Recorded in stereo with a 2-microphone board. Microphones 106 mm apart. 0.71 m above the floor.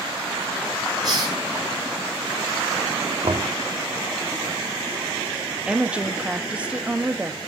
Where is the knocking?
60° right (ahead or behind), 1.3 m.